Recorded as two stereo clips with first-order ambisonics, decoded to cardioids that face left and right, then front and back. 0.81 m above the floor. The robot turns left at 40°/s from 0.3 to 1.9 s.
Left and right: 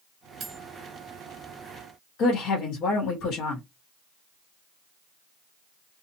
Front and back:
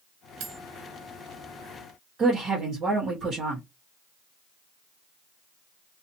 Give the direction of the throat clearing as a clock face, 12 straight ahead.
I don't hear throat clearing.